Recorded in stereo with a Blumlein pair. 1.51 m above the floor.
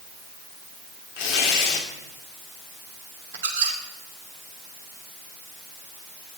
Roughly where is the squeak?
Ahead right.